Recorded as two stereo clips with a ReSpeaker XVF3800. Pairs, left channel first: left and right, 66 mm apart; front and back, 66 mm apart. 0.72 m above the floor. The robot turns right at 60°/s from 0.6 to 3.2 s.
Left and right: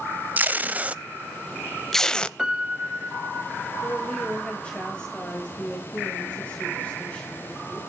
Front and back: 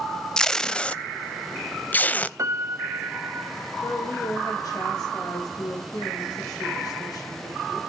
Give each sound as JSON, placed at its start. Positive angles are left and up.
{"t": 0.4, "sound": "tape being pulled", "azimuth_deg": -70, "distance_m": 0.5}
{"t": 2.4, "sound": "a piano", "azimuth_deg": -165, "distance_m": 1.0}
{"t": 3.8, "sound": "a woman speaking", "azimuth_deg": 15, "distance_m": 3.5}